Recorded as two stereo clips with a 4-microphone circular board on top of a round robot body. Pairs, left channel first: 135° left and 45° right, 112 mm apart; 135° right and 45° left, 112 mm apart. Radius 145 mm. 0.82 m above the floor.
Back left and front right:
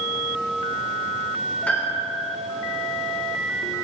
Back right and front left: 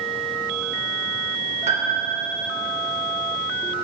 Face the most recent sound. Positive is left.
turn(degrees=55)